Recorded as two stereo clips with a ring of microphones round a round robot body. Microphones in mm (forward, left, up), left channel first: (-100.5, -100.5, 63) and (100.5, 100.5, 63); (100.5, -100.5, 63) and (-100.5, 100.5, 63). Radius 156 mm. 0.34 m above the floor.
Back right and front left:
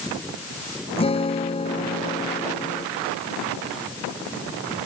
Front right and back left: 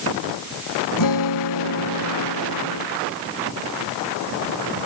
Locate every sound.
1.0 s a guitar: 65° right